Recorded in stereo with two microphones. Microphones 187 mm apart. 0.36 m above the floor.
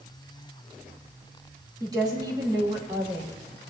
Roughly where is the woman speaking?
Right.